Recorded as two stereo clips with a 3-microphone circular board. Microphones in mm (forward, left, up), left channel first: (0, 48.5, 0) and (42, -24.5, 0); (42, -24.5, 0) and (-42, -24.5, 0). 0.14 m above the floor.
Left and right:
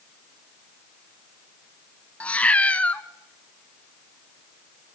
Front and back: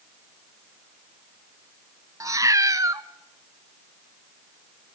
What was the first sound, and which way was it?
A cat meowing, 175° right.